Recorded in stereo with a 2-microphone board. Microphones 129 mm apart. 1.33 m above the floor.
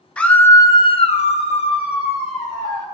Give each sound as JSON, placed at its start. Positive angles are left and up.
{"t": 0.2, "sound": "a scream", "side_deg": 5, "distance_m": 0.8}